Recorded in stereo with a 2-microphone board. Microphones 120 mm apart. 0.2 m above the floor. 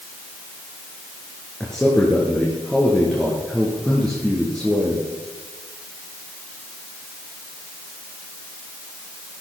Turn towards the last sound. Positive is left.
turn(degrees=5)  # may be behind; listen again after turning